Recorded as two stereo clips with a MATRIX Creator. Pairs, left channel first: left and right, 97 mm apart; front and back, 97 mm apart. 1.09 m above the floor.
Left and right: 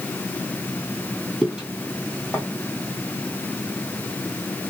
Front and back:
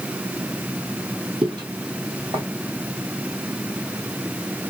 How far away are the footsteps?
About 1.7 m.